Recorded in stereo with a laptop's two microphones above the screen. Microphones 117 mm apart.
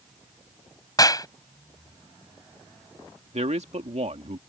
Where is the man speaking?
70° right (ahead or behind).